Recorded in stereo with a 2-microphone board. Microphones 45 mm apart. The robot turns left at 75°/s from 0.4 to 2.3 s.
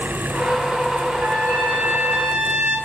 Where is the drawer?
No drawer in this recording.